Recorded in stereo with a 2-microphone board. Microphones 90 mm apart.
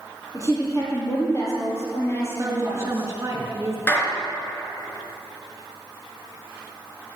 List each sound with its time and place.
0.3 s a woman speaking: 40° left (ahead or behind), 5.5 m; by 3.1 s 20° left (ahead or behind), 5 m
2.4 s a woman speaking: 30° right (ahead or behind), 3.5 m
3.9 s a clap: 20° left (ahead or behind), 3.5 m